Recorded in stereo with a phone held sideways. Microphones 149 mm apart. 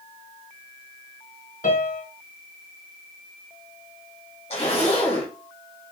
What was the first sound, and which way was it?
A piano, 65° left (ahead or behind).